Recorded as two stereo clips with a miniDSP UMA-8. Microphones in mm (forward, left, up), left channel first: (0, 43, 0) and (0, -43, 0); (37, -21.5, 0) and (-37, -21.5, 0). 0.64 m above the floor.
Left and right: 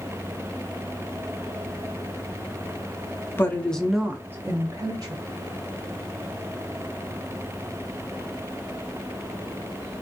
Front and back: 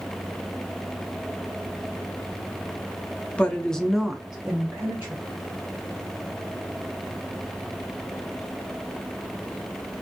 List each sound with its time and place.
3.4 s a woman speaking: 60° left, 0.6 m; by 5.2 s 115° right, 0.9 m